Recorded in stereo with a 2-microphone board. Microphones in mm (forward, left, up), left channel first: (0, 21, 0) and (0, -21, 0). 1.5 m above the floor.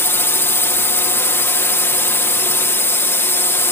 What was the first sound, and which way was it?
A drone, 65° left (ahead or behind).